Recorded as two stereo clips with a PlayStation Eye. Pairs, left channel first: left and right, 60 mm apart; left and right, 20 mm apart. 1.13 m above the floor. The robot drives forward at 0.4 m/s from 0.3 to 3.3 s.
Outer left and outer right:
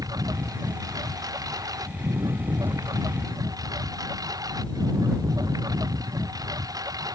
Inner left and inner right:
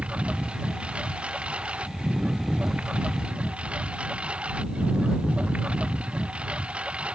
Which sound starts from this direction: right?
A lawn mower, at 0.0 s.